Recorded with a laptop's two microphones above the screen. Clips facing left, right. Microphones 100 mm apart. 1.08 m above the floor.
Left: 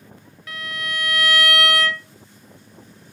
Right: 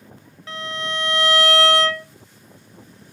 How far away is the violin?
About 0.7 m.